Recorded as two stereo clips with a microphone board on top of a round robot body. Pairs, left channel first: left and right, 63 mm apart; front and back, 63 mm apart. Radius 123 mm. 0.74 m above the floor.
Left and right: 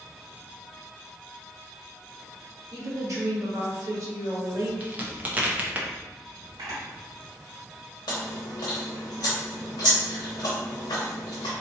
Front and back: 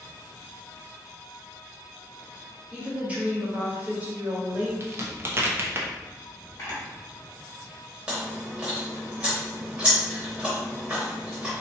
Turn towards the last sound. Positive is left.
turn(degrees=105)